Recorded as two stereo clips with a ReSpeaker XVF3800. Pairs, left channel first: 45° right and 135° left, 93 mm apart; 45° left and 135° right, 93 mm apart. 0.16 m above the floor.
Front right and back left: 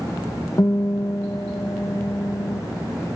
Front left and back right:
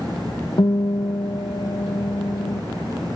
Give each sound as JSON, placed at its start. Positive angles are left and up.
{"t": 0.6, "sound": "a guitar", "azimuth_deg": 10, "distance_m": 0.8}